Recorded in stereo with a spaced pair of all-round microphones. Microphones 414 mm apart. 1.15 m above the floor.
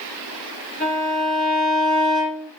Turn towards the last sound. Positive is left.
turn(degrees=25)  # may be behind; listen again after turning